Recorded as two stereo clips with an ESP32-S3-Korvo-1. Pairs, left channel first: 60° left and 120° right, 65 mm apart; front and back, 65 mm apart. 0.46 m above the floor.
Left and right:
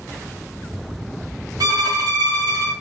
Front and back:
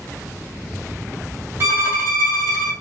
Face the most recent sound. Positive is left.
turn(degrees=-130)